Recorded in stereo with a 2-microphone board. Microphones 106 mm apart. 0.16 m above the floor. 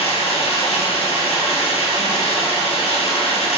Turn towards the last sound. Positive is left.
turn(degrees=70)  # may be behind; listen again after turning